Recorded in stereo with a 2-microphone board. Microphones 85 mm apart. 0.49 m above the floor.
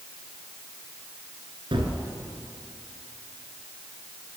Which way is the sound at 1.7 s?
75° right (ahead or behind).